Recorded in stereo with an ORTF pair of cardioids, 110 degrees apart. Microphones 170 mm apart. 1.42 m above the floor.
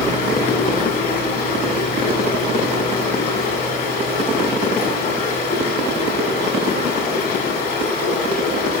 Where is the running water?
65° left, 2.5 m.